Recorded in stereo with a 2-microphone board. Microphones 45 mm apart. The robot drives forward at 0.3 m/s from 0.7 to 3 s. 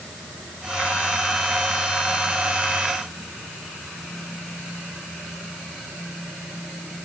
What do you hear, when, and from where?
Only background noise.